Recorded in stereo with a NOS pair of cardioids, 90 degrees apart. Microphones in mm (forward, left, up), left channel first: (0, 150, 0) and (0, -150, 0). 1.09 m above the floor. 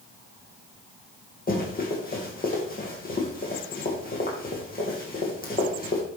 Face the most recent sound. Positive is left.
turn(degrees=30)